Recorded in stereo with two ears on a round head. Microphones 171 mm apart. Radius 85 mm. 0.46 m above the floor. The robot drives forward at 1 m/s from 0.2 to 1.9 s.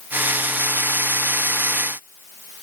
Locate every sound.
Only background noise.